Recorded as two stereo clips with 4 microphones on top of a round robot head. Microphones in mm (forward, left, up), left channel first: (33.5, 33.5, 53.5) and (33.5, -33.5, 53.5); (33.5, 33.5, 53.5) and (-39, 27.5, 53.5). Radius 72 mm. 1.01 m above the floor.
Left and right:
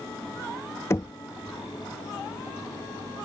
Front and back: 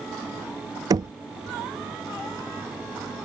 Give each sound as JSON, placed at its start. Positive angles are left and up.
{"t": 0.9, "sound": "knocking", "azimuth_deg": 150}